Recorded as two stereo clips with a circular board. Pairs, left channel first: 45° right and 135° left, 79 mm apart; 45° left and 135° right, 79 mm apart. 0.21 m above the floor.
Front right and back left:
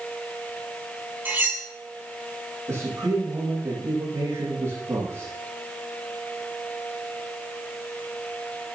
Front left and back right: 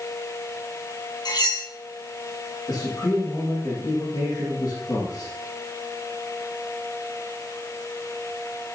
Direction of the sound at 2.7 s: 90° left.